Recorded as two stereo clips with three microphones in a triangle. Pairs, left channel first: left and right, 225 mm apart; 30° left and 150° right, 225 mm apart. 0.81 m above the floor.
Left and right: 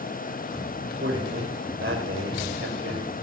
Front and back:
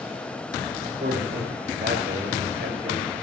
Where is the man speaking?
110° right, 4.5 m.